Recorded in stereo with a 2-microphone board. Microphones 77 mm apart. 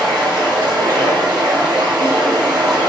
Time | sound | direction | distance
0.0 | running water | 75° right (ahead or behind) | 1.3 m